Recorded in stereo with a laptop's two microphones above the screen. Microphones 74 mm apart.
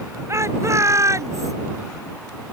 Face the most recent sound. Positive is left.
turn(degrees=-45)  # may be behind; listen again after turning